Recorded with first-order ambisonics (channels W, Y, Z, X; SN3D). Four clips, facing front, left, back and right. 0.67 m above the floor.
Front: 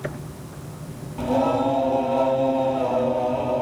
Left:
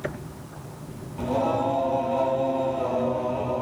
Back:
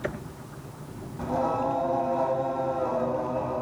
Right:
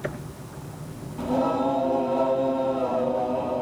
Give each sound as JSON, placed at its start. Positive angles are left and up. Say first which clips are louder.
{"t": 1.2, "sound": "singing", "louder": "right 1 dB, front 6 dB", "azimuth_deg": 15, "distance_m": 4.0}